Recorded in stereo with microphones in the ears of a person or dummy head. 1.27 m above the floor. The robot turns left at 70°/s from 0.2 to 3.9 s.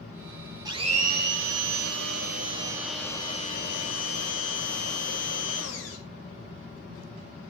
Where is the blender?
20° right, 2 m; by 6.0 s 110° left, 2 m.